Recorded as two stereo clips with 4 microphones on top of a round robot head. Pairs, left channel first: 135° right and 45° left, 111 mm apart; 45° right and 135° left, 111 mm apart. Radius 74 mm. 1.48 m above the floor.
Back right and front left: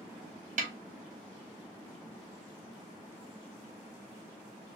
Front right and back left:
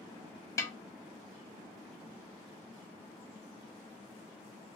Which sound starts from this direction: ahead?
A snare drum, at 0.6 s.